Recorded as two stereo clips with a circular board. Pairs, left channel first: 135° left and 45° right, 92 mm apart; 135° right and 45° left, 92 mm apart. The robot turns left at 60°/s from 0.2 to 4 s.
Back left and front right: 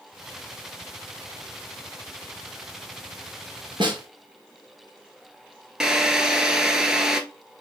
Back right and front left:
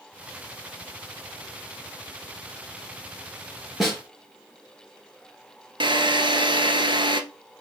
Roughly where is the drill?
Ahead left.